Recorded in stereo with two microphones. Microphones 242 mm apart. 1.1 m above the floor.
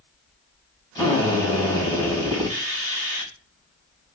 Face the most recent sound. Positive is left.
turn(degrees=15)  # may be behind; listen again after turning